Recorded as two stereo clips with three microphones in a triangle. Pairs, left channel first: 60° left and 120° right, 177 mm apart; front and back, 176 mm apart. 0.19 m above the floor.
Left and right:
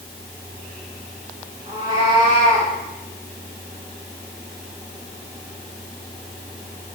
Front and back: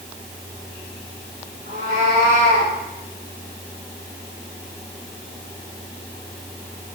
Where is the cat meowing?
175° right, 6.5 m.